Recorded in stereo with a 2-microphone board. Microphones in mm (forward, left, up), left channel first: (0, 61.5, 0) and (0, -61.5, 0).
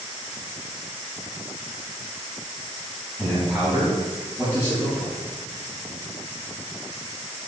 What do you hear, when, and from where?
3.2 s a man speaking: 5° left (ahead or behind), 2 m; by 5.1 s 10° right (ahead or behind), 4 m